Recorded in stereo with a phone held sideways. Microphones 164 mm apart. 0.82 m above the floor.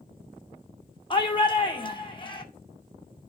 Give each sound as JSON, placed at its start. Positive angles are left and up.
{"t": 1.1, "sound": "a shout", "side_deg": 30, "distance_m": 2.0}